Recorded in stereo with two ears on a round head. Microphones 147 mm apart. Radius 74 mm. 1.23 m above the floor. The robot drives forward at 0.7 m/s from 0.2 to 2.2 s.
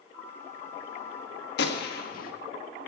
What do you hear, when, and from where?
1.6 s a gunshot: 70° left (ahead or behind), 1.4 m; by 2.3 s 55° left (ahead or behind), 1.6 m